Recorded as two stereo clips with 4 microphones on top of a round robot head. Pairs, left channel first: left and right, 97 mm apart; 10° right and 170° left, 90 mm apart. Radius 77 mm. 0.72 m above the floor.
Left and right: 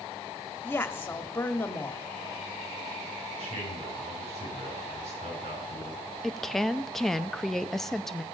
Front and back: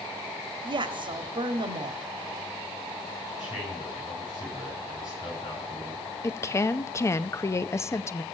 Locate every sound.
0.6 s a woman speaking: 160° left, 2 m
3.4 s a man speaking: 65° right, 6 m
6.2 s a woman speaking: 5° left, 0.7 m